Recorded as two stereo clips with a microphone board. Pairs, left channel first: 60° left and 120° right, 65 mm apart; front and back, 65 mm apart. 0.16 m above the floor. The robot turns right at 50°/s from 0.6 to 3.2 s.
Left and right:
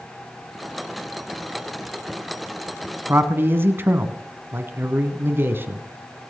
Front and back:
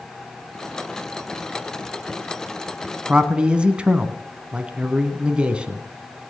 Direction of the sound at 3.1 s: 120° right.